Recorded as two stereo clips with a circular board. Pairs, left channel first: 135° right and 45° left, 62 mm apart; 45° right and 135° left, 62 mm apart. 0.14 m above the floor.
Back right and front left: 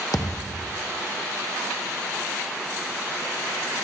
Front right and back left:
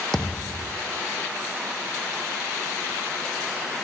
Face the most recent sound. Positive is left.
turn(degrees=-130)